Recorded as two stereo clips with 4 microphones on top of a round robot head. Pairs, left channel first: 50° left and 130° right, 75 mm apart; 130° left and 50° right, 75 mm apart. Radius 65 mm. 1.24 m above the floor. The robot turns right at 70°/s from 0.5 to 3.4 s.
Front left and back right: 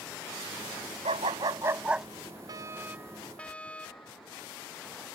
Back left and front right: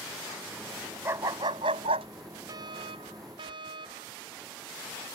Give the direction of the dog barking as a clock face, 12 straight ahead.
4 o'clock.